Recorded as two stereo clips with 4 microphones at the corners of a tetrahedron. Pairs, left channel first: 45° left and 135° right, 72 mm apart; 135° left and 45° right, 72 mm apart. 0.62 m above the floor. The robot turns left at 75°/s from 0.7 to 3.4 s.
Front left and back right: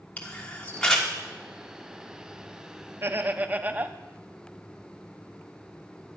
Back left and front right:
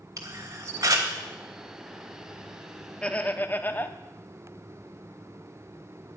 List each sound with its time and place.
0.2 s a camera shutter: 25° right, 1.4 m; by 1.1 s 50° right, 1.4 m
3.0 s laughter: 155° right, 0.6 m; by 4.0 s 175° left, 0.6 m